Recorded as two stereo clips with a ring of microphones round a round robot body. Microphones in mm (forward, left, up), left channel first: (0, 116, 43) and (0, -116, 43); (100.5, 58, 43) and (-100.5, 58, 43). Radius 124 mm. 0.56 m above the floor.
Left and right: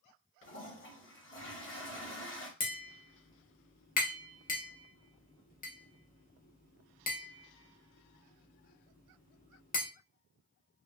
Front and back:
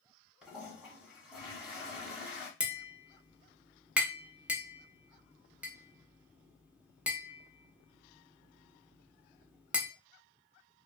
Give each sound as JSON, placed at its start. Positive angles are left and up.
{"t": 0.4, "sound": "a toilet flushing", "azimuth_deg": 95, "distance_m": 1.5}
{"t": 2.6, "sound": "tapping", "azimuth_deg": 100, "distance_m": 1.0}